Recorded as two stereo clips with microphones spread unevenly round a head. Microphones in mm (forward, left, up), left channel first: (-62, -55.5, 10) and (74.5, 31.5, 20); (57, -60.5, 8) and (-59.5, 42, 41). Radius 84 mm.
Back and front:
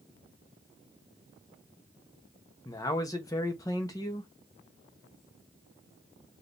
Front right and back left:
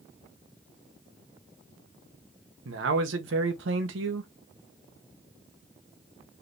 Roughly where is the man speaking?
Behind left.